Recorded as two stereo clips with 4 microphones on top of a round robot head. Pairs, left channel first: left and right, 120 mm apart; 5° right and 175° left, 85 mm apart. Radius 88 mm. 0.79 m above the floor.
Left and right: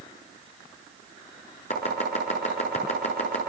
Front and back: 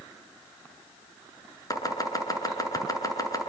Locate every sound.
1.7 s chopping: 45° left, 7 m